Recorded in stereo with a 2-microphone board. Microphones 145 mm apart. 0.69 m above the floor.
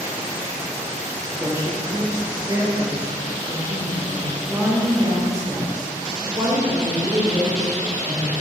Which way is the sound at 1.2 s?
25° right (ahead or behind).